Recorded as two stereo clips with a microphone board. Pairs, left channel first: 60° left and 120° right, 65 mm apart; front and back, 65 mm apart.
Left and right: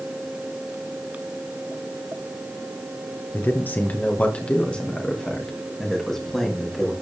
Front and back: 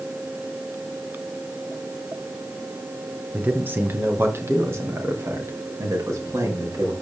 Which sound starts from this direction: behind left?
A man speaking, at 3.3 s.